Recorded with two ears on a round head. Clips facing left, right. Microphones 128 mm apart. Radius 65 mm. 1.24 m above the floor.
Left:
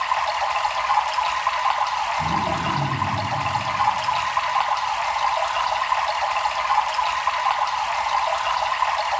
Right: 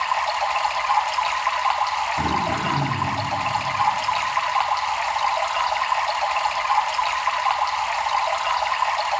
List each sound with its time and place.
0.0 s running water: 5° right (ahead or behind), 1.2 m
2.2 s throat clearing: 80° right, 5.5 m